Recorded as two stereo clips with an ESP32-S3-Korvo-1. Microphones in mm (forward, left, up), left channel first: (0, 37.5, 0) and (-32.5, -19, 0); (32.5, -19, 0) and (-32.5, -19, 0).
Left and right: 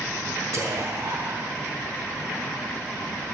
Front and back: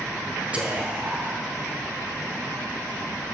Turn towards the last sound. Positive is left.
turn(degrees=-120)